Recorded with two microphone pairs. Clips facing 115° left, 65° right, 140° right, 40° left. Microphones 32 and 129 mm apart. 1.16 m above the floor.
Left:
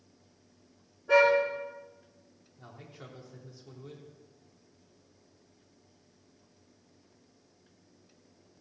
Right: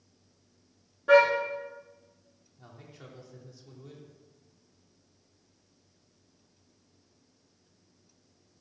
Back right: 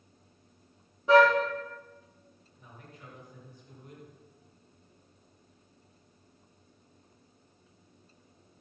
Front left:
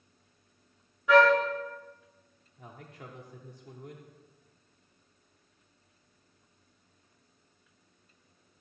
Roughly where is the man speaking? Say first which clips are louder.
Left 1 dB, front left 4 dB; ahead left.